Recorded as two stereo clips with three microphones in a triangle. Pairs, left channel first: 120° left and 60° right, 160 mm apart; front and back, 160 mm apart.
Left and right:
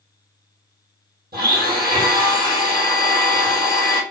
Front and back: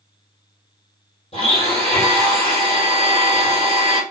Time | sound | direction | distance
1.3 | a blender | 50° right | 3.5 m